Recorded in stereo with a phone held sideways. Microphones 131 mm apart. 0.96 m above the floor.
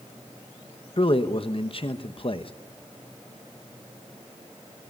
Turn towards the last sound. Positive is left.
turn(degrees=50)  # may be behind; listen again after turning